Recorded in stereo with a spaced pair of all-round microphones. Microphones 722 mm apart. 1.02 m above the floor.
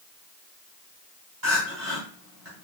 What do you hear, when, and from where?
1.4 s crying: 55° right (ahead or behind), 1.5 m